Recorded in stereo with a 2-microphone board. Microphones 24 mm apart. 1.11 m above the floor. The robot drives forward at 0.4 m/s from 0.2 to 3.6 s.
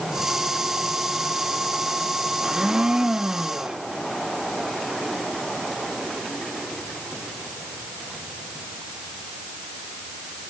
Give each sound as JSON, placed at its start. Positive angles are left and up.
{"t": 2.4, "sound": "a blender", "side_deg": -30, "distance_m": 0.8}